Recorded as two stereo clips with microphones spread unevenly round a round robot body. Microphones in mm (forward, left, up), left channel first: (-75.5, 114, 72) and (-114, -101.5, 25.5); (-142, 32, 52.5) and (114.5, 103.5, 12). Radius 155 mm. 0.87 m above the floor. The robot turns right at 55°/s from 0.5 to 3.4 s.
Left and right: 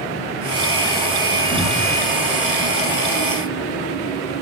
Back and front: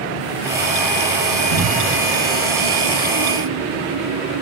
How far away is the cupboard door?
About 4 m.